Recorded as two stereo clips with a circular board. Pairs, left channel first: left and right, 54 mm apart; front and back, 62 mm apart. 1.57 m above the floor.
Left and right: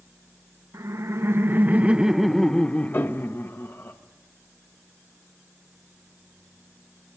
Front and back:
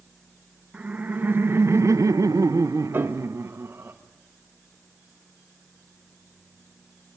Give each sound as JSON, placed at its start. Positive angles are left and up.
{"t": 0.7, "sound": "laughter", "azimuth_deg": -115, "distance_m": 1.1}
{"t": 2.9, "sound": "a piano", "azimuth_deg": 130, "distance_m": 1.3}